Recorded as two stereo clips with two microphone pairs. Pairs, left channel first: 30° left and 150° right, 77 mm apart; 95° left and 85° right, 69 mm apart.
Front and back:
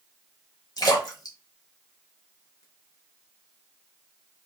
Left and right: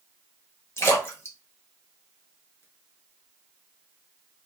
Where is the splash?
45° left, 0.9 m.